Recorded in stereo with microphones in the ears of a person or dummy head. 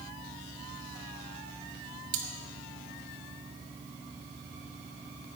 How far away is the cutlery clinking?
About 1.8 m.